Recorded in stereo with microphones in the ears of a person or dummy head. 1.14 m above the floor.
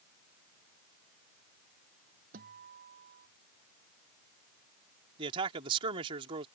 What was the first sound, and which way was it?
A guitar, 55° right (ahead or behind).